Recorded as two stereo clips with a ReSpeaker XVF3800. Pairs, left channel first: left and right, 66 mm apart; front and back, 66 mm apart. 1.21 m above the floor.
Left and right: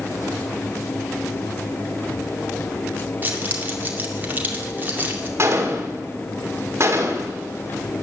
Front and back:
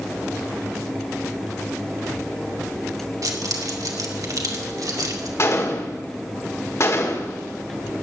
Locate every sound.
3.2 s keys jangling: 150° right, 2 m
5.4 s a gunshot: 45° right, 2 m